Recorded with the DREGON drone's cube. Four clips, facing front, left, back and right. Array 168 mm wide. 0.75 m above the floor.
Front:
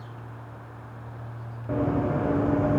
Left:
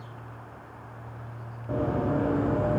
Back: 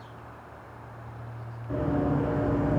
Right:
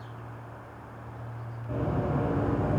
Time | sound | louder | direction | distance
1.7 | running footsteps | left 3 dB, front 1 dB | 20° left | 3.5 m